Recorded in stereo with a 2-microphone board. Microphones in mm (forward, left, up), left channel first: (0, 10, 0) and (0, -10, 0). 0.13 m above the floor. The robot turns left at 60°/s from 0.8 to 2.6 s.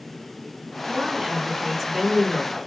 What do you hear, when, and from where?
0.9 s a woman speaking: 130° right, 1.6 m; by 2.6 s 130° left, 1.6 m